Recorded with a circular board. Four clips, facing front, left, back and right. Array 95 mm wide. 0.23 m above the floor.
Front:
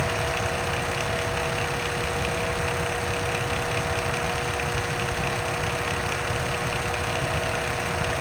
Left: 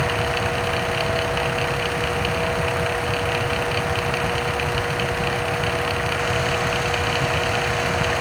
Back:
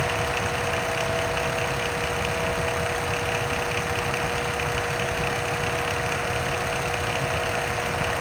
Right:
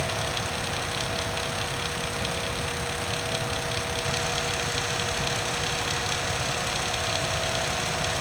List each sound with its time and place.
Only background noise.